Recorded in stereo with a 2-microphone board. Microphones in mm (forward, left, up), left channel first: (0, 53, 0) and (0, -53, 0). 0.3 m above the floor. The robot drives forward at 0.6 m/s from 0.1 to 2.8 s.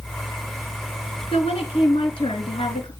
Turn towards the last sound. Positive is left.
turn(degrees=55)  # may be behind; listen again after turning